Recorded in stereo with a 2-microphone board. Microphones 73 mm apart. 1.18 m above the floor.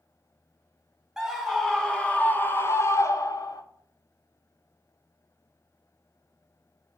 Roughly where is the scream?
Centre.